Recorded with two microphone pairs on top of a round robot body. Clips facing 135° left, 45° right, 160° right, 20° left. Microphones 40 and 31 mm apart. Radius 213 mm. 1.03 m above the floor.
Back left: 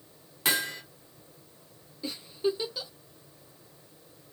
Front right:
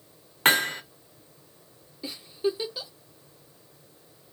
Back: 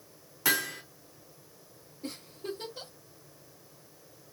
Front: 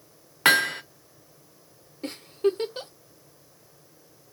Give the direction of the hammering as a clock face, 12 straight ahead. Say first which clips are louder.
Front right 7 dB, front 10 dB; 12 o'clock.